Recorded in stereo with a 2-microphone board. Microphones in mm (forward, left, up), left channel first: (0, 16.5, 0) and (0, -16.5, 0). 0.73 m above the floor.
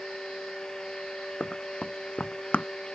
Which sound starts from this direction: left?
Running footsteps, at 1.4 s.